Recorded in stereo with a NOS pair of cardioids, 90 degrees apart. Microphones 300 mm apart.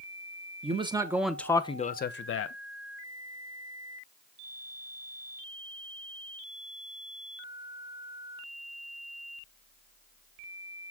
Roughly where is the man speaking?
Ahead.